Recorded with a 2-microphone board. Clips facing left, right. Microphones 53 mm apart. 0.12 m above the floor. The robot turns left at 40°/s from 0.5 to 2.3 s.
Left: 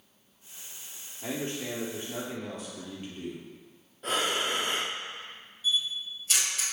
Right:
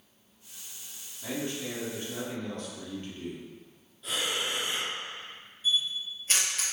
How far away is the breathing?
About 1.0 m.